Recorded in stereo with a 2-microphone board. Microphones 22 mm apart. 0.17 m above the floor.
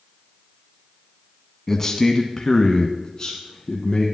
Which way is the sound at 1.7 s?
20° left (ahead or behind).